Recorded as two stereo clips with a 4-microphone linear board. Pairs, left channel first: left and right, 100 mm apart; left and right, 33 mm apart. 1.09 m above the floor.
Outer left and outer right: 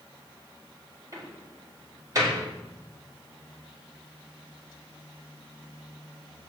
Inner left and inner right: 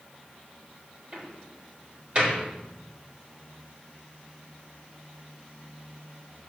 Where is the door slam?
35° right (ahead or behind), 3.5 m.